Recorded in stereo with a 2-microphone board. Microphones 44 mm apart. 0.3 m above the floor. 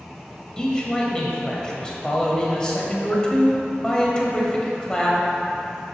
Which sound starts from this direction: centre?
A man speaking, at 0.6 s.